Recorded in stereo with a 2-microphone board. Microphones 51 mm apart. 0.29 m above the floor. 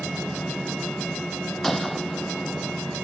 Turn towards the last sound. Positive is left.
turn(degrees=5)  # may be behind; listen again after turning